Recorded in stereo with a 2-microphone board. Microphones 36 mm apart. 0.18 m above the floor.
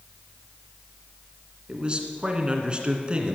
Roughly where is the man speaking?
Right.